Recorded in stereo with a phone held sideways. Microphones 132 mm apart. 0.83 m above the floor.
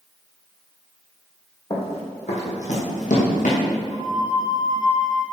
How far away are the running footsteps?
About 2.5 m.